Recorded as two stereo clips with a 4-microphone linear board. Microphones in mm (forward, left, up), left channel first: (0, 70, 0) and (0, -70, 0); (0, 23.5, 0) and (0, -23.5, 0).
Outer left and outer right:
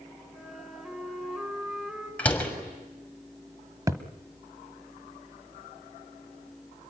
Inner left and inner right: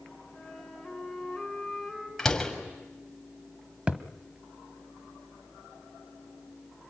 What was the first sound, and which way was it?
A flute, centre (ahead or behind).